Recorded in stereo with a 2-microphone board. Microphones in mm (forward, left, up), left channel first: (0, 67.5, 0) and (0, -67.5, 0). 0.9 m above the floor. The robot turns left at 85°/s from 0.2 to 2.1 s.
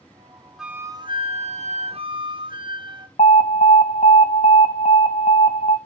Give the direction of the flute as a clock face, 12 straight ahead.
12 o'clock.